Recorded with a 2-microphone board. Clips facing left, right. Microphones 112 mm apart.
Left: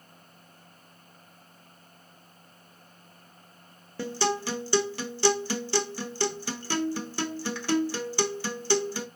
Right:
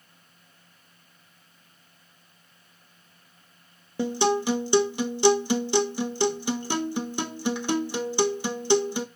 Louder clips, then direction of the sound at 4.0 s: Right 5 dB; 20° right (ahead or behind).